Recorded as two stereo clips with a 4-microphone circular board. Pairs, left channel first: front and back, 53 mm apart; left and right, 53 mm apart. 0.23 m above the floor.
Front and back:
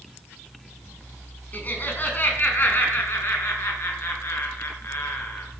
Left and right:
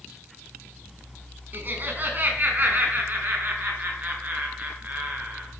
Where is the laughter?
50° right, 2.5 m; by 5.5 s 35° right, 4.5 m.